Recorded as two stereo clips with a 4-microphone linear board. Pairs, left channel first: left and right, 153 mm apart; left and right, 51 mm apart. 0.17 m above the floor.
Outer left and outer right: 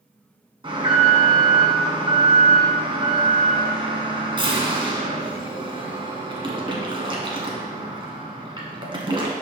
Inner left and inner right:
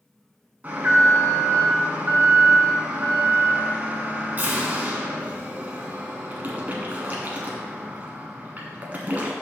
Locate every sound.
0.6 s an alarm: 35° right (ahead or behind), 1.4 m